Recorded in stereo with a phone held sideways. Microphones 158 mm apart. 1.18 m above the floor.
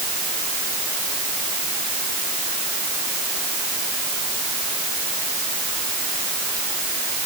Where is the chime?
I don't hear a chime.